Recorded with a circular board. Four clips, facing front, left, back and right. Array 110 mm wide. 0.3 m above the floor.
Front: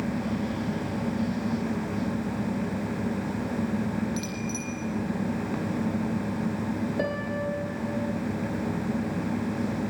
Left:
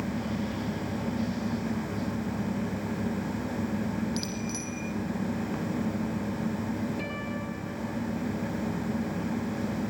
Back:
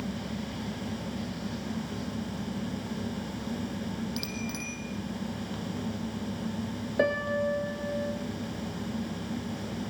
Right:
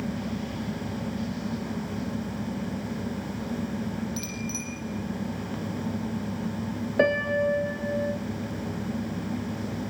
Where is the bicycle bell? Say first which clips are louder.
Left 1 dB, front 4 dB; 145° left, 9 m.